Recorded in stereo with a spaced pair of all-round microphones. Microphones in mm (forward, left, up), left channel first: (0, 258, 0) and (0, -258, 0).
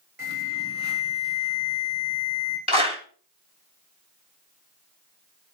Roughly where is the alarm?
Right.